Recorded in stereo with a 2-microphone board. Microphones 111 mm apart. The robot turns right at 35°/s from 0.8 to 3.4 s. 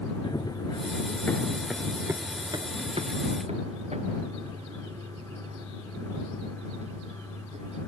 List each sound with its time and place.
0.2 s running footsteps: 40° left (ahead or behind); by 7.8 s 80° right